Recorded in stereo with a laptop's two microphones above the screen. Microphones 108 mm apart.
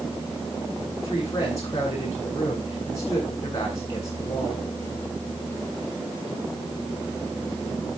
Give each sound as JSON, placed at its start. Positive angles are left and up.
{"t": 1.0, "sound": "a woman speaking", "side_deg": 30, "distance_m": 9.0}